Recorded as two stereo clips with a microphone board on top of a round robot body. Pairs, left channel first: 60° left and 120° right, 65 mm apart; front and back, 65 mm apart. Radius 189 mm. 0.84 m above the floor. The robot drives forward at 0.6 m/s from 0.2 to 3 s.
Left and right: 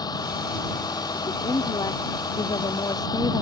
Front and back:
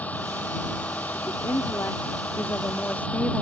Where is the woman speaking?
45° left; by 3.4 s 65° left.